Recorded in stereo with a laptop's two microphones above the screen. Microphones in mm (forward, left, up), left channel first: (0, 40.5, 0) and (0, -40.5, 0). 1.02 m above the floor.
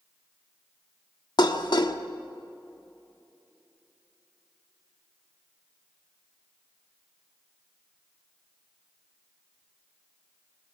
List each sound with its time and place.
1.4 s dishes clattering: 65° left (ahead or behind), 1.3 m